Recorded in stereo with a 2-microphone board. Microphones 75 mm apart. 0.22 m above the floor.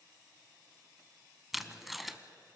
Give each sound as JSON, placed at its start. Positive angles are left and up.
{"t": 1.5, "sound": "tape being pulled", "side_deg": 0, "distance_m": 0.9}